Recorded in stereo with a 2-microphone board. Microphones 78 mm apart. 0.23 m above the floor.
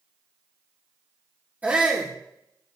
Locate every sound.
1.6 s a shout: 20° right (ahead or behind), 4.5 m